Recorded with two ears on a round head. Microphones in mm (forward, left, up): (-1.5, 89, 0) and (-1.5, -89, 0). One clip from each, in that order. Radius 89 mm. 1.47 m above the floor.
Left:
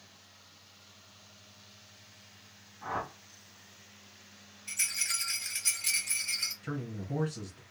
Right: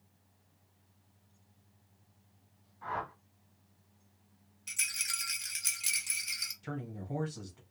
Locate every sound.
2.8 s a whoosh: 5° right (ahead or behind), 1.5 m
4.7 s a rattle: 45° right (ahead or behind), 1.3 m
6.6 s a man speaking: 5° right (ahead or behind), 1.2 m